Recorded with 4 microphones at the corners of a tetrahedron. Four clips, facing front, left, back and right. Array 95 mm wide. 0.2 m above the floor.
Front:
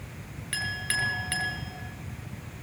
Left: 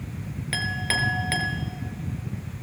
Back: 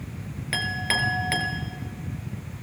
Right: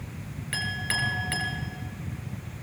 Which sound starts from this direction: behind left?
A clink, at 0.5 s.